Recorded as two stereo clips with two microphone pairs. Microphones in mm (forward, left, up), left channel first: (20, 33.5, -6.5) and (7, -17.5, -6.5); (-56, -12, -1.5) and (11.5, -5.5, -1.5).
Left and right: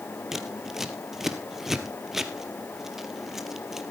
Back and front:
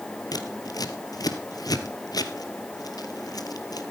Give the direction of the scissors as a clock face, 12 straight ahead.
6 o'clock.